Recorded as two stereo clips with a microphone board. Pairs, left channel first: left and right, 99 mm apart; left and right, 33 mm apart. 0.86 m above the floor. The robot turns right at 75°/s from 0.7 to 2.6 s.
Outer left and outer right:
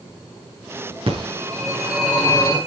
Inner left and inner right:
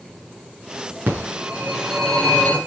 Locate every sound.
1.1 s a phone ringing: 70° right (ahead or behind), 8.5 m; by 2.6 s 45° left (ahead or behind), 8.5 m